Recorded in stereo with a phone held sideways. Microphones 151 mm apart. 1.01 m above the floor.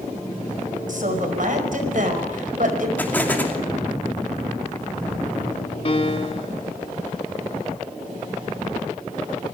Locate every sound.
0.9 s a woman speaking: 65° right (ahead or behind), 5 m
3.0 s an explosion: 10° left (ahead or behind), 2.5 m
5.8 s a piano: 40° left (ahead or behind), 2.0 m